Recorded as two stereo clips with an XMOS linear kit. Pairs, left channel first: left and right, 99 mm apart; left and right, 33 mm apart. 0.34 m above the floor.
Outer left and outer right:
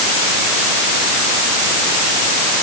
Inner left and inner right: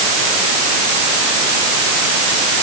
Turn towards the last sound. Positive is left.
No sound to turn to.